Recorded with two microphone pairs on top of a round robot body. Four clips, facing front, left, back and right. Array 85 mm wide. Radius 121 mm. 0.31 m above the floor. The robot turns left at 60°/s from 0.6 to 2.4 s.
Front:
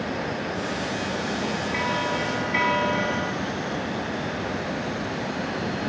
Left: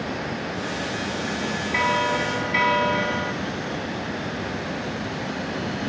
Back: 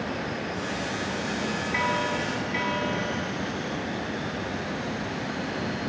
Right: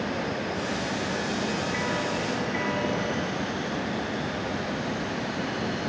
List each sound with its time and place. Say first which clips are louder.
1.7 s a bell: left 6 dB, back 1 dB; 130° left, 0.5 m; by 3.3 s 90° left, 0.5 m